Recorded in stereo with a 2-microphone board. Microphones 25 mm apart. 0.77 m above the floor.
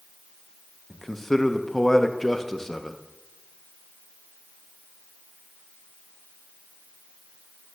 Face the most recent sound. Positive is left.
turn(degrees=15)  # may be behind; listen again after turning